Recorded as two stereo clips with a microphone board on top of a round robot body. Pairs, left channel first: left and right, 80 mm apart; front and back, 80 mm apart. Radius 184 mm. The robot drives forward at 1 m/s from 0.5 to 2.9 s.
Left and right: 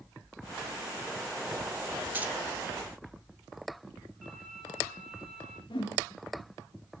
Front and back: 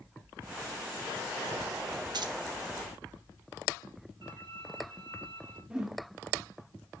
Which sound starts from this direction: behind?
A violin, at 4.2 s.